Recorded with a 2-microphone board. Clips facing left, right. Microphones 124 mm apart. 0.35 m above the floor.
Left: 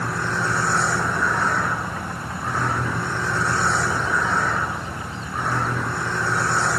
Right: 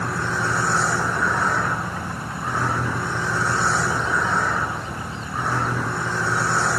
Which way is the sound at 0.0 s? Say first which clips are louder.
Even; 5° right (ahead or behind).